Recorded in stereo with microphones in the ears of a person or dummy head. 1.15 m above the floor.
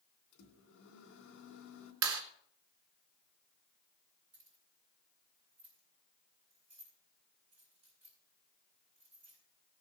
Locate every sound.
0.3 s a microwave: 70° left (ahead or behind), 2.5 m
2.0 s a clap: 75° right (ahead or behind), 2.5 m
4.3 s keys jangling: 35° right (ahead or behind), 7.5 m